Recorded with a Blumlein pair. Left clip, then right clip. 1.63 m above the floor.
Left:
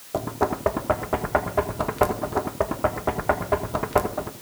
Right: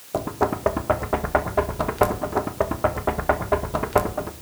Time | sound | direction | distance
0.1 | knocking | 5° right | 1.5 m